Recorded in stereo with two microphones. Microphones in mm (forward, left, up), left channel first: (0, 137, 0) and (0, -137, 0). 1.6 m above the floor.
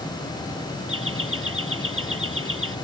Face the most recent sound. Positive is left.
turn(degrees=-50)  # may be behind; listen again after turning